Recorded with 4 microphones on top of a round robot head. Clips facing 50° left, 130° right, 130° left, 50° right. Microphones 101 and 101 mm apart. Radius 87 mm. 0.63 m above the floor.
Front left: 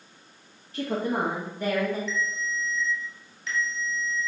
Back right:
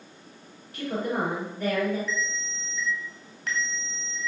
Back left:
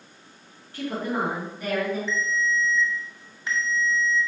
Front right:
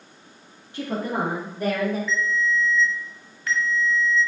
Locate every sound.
0.7 s a woman speaking: 10° left, 1.5 m; by 2.0 s 10° right, 2.5 m
2.1 s a ringtone: 165° right, 1.7 m